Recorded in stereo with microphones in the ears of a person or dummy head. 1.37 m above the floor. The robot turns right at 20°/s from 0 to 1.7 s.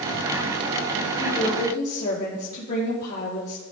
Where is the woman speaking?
45° left (ahead or behind), 4 m; by 3.6 s 55° left (ahead or behind), 4 m.